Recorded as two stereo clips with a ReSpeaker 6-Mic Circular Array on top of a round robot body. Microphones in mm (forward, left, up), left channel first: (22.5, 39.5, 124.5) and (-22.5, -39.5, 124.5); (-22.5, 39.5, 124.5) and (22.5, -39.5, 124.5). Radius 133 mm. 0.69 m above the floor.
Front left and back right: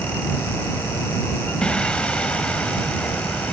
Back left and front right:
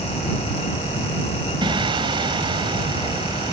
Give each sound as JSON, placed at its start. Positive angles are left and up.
{"t": 1.6, "sound": "singing", "azimuth_deg": -20}